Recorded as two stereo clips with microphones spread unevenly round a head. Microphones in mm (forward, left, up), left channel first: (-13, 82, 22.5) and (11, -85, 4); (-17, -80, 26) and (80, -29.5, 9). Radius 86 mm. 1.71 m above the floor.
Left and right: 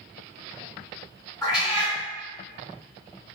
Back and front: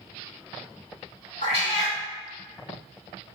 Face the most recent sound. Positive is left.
turn(degrees=-175)